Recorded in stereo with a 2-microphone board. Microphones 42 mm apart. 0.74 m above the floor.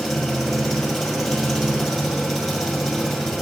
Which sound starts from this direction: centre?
An engine running, at 0.0 s.